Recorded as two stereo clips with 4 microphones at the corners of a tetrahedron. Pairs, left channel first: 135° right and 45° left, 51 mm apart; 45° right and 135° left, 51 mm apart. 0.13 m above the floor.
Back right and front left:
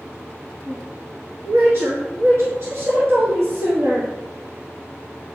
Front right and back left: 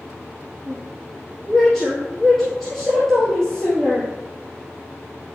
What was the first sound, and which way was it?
A woman speaking, 35° left.